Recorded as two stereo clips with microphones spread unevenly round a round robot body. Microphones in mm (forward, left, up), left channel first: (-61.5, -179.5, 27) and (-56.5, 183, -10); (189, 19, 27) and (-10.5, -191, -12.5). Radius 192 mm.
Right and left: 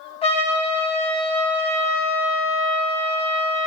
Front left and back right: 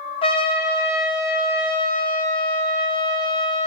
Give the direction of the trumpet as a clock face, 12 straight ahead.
1 o'clock.